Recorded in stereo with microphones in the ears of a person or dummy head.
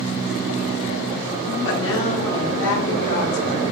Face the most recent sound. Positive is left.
turn(degrees=70)  # may be behind; listen again after turning